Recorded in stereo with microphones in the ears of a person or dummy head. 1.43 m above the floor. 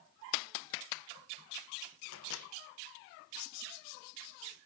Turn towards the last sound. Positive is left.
turn(degrees=70)  # may be behind; listen again after turning